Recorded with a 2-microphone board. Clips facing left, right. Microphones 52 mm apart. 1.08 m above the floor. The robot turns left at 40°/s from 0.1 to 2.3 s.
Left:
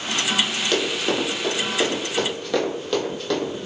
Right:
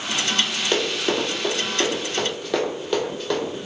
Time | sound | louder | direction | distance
0.7 | running footsteps | right 1 dB | 15° right (ahead or behind) | 1.1 m